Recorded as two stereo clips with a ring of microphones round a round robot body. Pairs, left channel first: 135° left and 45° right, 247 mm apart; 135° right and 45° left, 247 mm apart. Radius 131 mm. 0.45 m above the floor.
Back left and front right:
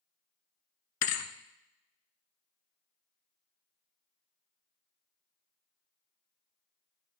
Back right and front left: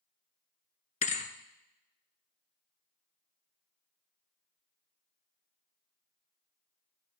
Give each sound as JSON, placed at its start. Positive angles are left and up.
{"t": 1.0, "sound": "a thud", "azimuth_deg": 160, "distance_m": 1.1}